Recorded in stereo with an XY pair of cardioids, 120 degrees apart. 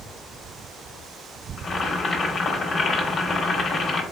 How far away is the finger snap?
I don't hear a finger snap.